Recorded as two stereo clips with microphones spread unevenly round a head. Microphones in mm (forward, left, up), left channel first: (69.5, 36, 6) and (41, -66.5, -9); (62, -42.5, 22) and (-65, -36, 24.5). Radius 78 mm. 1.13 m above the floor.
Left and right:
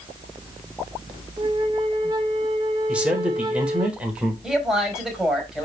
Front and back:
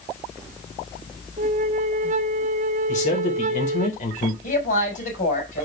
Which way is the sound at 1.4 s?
165° right.